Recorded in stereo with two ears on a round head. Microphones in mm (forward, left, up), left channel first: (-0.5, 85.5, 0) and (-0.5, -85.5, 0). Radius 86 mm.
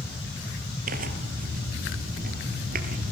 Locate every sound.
0.9 s tearing paper: 50° right (ahead or behind), 2.5 m